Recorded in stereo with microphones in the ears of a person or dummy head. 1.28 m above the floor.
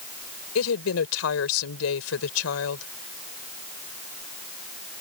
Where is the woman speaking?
85° left.